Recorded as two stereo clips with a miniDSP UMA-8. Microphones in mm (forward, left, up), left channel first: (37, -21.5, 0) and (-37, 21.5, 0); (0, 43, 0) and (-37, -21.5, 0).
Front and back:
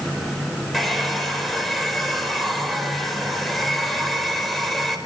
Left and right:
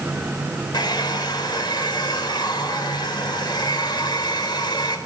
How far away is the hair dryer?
About 4 m.